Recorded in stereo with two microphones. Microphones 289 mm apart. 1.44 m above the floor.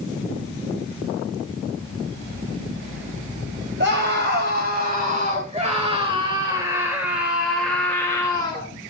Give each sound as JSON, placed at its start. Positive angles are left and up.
{"t": 3.8, "sound": "a scream", "side_deg": -40, "distance_m": 4.0}